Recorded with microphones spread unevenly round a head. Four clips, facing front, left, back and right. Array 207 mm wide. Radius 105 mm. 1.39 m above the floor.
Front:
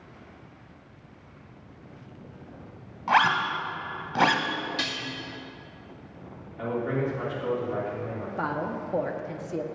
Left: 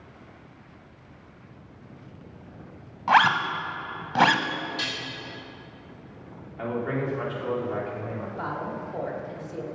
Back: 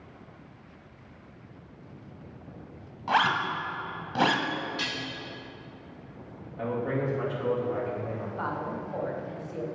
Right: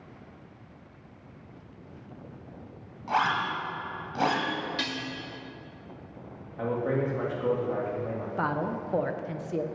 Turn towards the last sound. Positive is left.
turn(degrees=-50)